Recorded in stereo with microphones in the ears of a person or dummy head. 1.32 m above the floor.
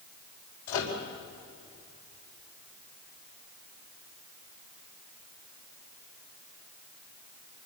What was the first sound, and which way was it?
A microwave, 85° left.